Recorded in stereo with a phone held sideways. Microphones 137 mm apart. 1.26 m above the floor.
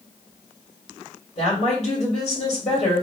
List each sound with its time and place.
1.4 s a woman speaking: 50° left (ahead or behind), 2 m